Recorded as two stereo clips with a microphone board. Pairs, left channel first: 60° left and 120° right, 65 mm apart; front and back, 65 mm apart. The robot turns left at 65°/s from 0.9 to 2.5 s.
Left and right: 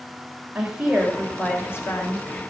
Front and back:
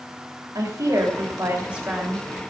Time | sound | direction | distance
0.6 | a woman speaking | 165° left | 3.5 m